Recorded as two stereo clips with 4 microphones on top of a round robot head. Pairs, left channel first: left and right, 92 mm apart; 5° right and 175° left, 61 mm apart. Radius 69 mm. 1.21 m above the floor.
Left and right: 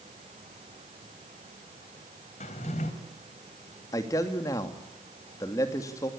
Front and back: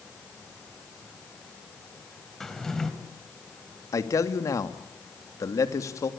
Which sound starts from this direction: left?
A drawer, at 2.4 s.